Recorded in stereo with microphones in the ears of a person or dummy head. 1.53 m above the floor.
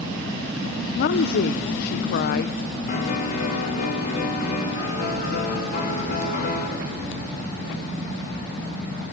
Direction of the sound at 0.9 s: 50° left (ahead or behind).